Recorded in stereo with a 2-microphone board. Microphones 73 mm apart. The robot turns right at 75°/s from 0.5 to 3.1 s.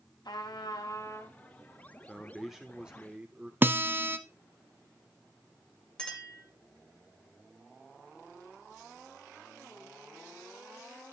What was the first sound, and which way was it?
A trumpet, 85° left.